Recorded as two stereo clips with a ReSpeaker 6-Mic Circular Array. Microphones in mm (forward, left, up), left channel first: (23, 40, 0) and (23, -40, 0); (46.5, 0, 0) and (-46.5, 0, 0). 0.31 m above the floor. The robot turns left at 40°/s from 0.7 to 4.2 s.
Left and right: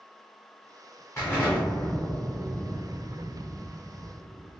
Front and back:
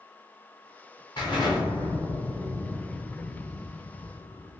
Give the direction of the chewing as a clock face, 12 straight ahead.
No chewing in this recording.